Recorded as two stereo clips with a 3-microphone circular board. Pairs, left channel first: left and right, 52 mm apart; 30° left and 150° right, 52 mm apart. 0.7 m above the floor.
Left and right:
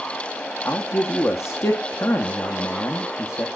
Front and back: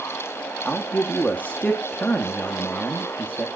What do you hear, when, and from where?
0.7 s a man speaking: 85° left, 0.9 m